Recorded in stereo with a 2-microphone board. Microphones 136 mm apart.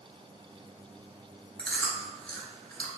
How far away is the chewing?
About 1.8 m.